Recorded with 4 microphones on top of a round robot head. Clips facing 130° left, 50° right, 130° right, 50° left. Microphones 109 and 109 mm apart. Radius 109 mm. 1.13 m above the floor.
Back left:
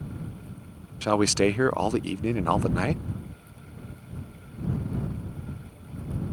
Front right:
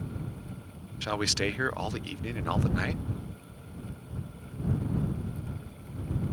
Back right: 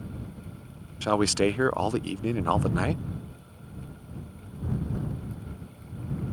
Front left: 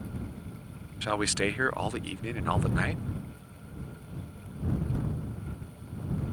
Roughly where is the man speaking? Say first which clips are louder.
Back left 9 dB, back right 6 dB; behind.